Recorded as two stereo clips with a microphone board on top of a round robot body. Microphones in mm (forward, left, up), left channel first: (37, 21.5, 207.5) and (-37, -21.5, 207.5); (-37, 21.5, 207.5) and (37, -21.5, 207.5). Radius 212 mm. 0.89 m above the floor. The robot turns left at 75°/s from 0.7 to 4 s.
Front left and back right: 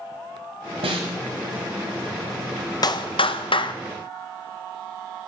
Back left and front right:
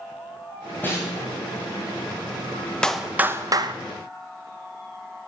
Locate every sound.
0.8 s a snare drum: 140° right, 1.2 m; by 1.2 s 170° right, 1.2 m
2.8 s a clap: 70° left, 0.8 m; by 3.7 s straight ahead, 0.8 m